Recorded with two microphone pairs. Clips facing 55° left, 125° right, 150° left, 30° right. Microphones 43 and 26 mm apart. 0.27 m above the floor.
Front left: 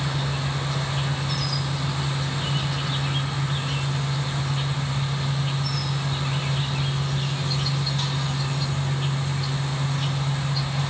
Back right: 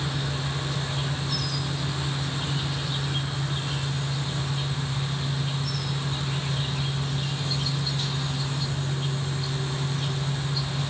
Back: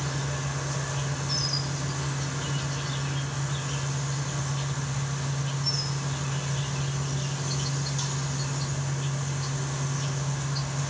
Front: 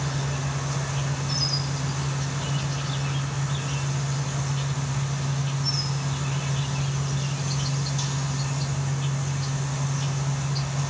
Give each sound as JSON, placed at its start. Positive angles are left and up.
{"t": 0.0, "sound": "an insect", "azimuth_deg": 45, "distance_m": 1.7}